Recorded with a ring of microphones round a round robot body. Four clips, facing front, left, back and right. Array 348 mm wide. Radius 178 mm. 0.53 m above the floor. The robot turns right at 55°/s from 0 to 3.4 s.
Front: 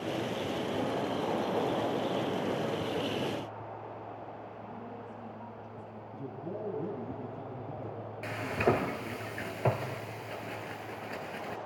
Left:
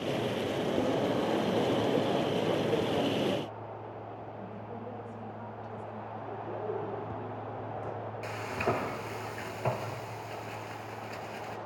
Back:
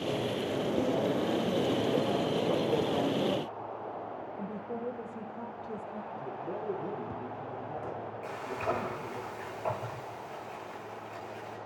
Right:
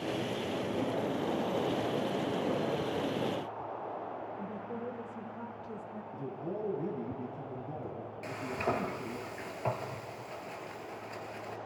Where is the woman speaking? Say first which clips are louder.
Right 2 dB, back 7 dB; 155° right, 2.5 m.